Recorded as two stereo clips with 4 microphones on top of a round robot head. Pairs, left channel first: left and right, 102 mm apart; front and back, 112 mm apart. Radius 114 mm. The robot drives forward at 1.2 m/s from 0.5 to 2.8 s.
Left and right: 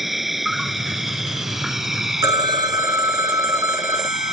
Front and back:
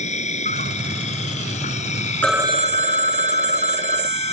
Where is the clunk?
I don't hear a clunk.